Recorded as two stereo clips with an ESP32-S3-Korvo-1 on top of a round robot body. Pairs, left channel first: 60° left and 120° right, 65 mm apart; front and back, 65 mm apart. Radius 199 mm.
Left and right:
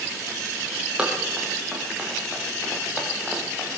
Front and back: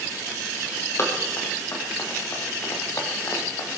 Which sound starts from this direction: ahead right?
Running footsteps, at 1.0 s.